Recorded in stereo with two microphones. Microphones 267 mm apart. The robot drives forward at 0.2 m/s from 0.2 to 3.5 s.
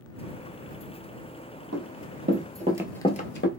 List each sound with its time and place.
1.7 s running footsteps: 60° right (ahead or behind), 1.2 m; by 3.5 s 45° left (ahead or behind), 0.7 m